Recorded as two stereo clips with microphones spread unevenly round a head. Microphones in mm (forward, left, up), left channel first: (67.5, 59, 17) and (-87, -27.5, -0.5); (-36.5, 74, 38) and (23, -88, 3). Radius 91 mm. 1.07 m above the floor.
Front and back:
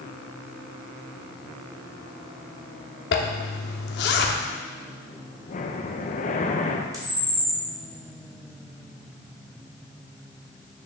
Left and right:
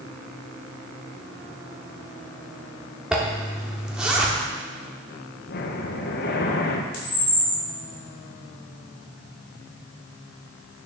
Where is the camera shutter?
135° left, 4 m.